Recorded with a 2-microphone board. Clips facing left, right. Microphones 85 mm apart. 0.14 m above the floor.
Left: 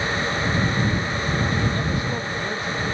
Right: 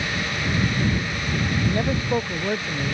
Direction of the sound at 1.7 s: 30° right (ahead or behind).